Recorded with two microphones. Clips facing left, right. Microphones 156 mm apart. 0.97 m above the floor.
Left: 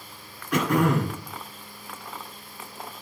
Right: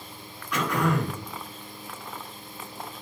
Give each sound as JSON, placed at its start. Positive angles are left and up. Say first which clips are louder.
{"t": 0.5, "sound": "throat clearing", "louder": "left 4 dB", "side_deg": 55, "distance_m": 1.8}